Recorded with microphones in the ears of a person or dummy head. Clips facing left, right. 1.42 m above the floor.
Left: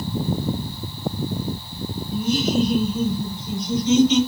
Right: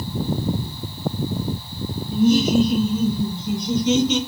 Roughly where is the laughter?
Right.